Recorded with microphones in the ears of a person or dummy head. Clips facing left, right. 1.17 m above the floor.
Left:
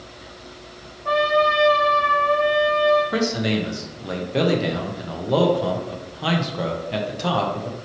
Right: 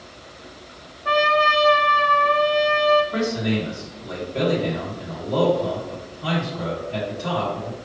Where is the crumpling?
No crumpling in this recording.